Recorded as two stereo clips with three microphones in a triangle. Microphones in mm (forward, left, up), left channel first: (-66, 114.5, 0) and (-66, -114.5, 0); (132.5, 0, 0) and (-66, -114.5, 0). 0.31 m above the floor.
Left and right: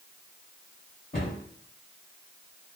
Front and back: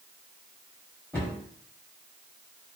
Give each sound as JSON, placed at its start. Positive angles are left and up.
{"t": 1.1, "sound": "a cupboard door", "azimuth_deg": 105, "distance_m": 1.9}